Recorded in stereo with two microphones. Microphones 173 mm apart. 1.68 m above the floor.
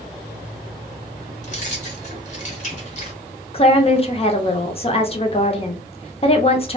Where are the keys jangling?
45° left (ahead or behind), 0.8 m.